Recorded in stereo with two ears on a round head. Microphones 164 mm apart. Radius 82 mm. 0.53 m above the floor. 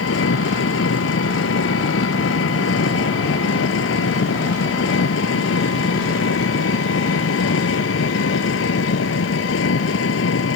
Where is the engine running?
85° left.